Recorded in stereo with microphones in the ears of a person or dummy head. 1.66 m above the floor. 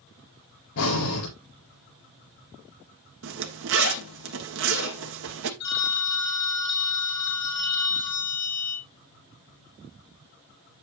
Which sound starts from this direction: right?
A zipper, at 3.2 s.